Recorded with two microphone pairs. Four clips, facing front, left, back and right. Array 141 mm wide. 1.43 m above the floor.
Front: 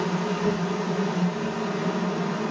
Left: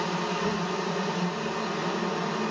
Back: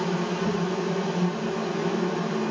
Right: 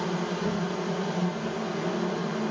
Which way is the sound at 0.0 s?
85° left.